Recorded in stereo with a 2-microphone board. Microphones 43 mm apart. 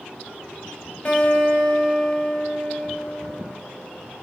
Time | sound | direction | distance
1.1 | a guitar | 40° left (ahead or behind) | 5.5 m